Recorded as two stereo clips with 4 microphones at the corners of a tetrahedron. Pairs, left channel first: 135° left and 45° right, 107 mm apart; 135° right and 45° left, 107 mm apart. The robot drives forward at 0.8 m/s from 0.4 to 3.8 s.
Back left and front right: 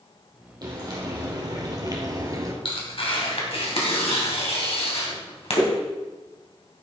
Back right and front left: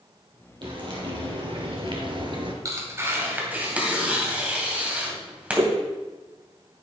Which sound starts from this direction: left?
Tearing paper, at 2.6 s.